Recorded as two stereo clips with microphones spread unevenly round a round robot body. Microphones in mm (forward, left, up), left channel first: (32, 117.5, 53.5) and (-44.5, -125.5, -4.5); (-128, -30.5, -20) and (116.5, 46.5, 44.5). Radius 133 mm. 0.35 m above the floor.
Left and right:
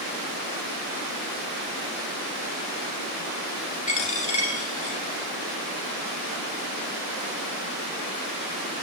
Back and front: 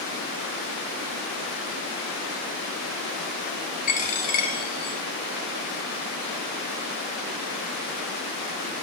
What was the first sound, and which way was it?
A dropped coin, 135° left.